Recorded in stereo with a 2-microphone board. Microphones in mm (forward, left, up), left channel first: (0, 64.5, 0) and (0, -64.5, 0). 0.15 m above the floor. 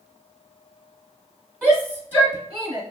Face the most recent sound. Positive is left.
turn(degrees=35)  # may be behind; listen again after turning